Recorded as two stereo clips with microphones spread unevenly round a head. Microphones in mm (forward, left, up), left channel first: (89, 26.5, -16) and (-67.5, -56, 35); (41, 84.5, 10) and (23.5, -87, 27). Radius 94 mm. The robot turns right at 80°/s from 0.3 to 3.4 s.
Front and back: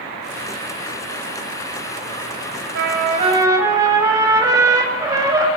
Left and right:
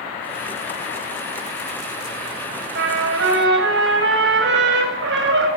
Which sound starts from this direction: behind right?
A trumpet, at 2.8 s.